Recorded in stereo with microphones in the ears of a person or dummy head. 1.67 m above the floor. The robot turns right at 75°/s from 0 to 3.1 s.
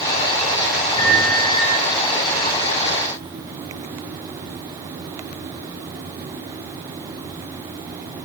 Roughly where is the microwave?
Ahead.